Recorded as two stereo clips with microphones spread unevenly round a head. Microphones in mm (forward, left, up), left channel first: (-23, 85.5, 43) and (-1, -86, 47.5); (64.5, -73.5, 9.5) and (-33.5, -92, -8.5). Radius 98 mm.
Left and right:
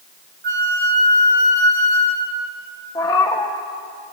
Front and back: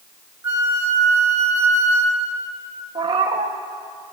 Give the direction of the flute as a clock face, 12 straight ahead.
4 o'clock.